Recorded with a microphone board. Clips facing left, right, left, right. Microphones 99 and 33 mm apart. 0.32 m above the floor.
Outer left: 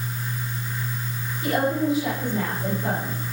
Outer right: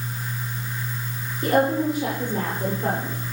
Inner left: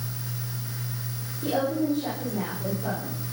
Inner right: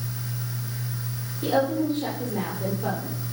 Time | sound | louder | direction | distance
1.4 | a woman speaking | outer right 2 dB, inner right 2 dB | 45° right (ahead or behind) | 9 m